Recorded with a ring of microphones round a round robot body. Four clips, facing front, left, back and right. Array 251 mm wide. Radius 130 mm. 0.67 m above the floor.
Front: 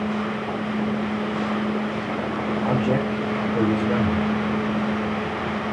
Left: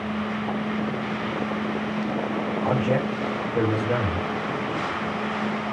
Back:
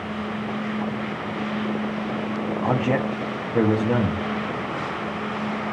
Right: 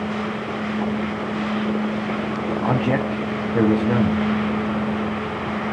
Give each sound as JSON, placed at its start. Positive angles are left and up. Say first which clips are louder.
{"t": 2.6, "sound": "a man speaking", "louder": "right 2 dB, even", "azimuth_deg": -120, "distance_m": 0.9}